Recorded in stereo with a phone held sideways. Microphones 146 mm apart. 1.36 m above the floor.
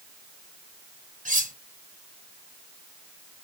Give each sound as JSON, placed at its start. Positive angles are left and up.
{"t": 1.2, "sound": "cutlery clinking", "side_deg": -65, "distance_m": 1.0}